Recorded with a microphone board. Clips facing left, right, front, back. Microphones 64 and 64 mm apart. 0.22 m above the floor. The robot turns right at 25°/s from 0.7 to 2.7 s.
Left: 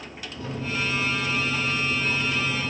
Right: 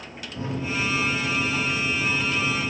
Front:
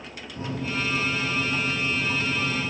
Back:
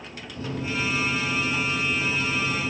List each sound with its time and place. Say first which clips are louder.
0.4 s a microwave: right 2 dB, even; 50° right, 1.1 m; by 2.7 s straight ahead, 1.1 m